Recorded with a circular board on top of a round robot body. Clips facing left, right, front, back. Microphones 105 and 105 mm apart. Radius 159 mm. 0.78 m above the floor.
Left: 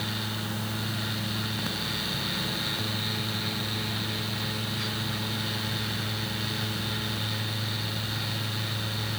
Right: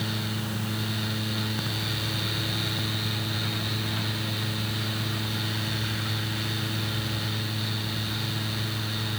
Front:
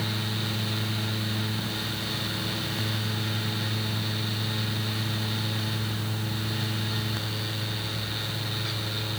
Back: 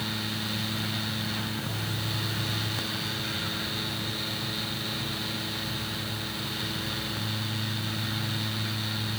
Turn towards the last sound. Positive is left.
No sound to turn to.